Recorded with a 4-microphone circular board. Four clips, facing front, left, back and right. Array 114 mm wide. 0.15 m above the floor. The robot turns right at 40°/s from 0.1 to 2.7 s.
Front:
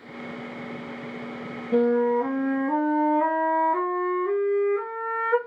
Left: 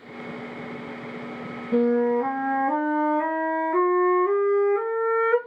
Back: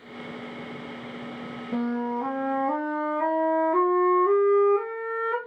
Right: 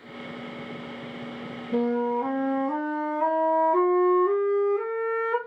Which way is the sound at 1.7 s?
50° left.